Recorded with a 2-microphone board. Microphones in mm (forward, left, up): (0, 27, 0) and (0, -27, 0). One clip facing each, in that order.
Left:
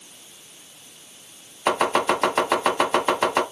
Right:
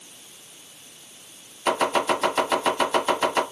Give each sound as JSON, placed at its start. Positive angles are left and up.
{"t": 1.7, "sound": "chopping", "side_deg": 25, "distance_m": 1.5}